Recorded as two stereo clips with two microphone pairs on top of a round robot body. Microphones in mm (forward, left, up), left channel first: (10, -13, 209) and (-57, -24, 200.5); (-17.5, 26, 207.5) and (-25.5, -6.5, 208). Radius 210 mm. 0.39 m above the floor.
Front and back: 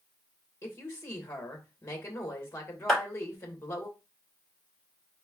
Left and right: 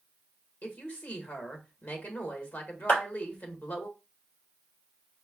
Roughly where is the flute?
No flute in this recording.